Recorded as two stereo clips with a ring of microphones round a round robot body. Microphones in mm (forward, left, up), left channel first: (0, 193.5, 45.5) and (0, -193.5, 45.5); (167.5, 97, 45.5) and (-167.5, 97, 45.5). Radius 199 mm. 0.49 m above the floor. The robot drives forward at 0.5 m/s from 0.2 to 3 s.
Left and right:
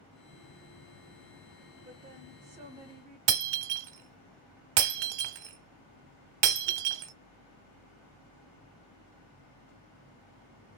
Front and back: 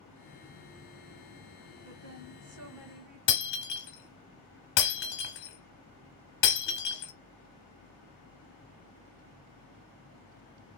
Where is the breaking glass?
60° right, 0.9 m.